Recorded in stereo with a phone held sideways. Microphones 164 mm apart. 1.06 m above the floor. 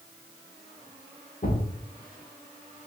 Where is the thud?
65° left (ahead or behind), 1.3 m.